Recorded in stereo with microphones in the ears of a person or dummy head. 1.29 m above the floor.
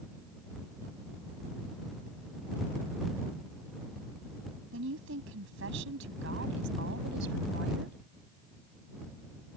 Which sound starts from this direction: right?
A woman speaking, at 4.7 s.